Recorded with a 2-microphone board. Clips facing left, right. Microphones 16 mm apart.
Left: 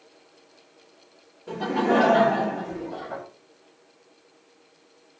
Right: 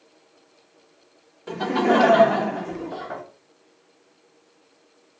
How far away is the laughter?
About 1.0 m.